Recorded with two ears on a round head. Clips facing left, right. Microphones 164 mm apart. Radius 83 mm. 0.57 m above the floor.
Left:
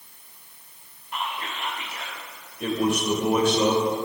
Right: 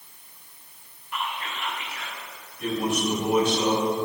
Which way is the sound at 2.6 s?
65° left (ahead or behind).